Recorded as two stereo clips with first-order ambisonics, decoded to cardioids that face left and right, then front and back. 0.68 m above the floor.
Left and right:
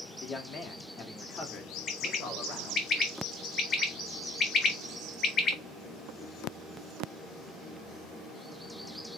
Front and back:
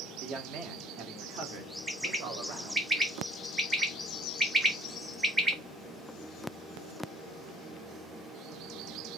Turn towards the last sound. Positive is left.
turn(degrees=120)